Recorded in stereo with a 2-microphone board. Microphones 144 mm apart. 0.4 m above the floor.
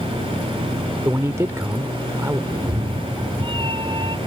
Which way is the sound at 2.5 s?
35° right (ahead or behind).